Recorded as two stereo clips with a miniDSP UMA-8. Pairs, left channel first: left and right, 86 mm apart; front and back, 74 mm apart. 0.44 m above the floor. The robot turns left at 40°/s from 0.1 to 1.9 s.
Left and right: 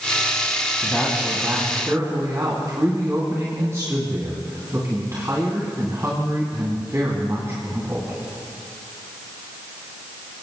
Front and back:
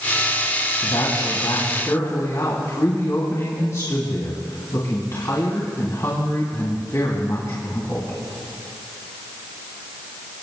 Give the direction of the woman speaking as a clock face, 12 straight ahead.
12 o'clock.